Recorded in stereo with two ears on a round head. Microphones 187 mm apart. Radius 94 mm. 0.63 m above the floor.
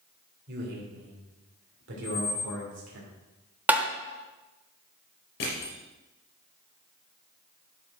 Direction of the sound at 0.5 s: 55° right (ahead or behind).